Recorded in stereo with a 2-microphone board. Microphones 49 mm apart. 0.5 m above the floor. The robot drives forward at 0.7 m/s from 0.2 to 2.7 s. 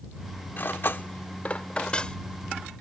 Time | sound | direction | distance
0.6 | cutlery clinking | 45° left (ahead or behind) | ?